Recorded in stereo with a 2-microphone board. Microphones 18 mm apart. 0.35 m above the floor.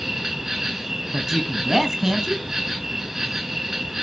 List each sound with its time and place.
0.0 s an insect: 20° right (ahead or behind), 3 m
1.1 s a man speaking: 25° right (ahead or behind), 3 m